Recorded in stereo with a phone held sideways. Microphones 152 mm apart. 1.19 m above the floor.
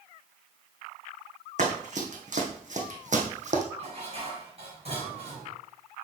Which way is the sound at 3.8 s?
45° right (ahead or behind).